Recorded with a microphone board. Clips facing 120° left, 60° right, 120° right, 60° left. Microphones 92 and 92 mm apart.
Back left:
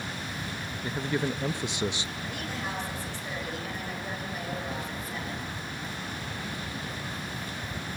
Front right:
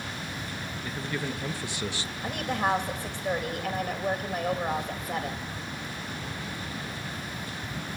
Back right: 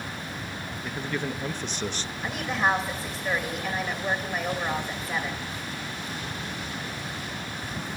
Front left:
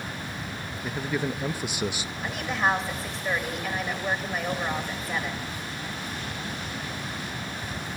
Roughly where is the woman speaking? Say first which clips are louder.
Front right 10 dB, even; ahead right.